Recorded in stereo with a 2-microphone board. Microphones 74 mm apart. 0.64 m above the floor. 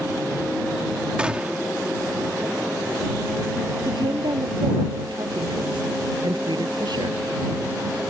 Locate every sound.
1.2 s a gunshot: 15° right (ahead or behind)
3.9 s a woman speaking: 75° right (ahead or behind)